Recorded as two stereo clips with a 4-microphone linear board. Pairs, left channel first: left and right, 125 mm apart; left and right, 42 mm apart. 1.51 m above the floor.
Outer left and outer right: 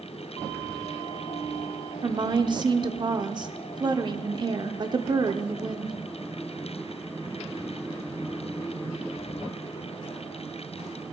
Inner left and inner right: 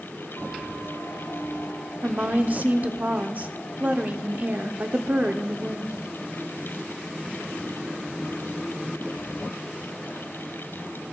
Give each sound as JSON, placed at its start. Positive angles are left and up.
{"t": 2.0, "sound": "a woman speaking", "side_deg": -35, "distance_m": 0.7}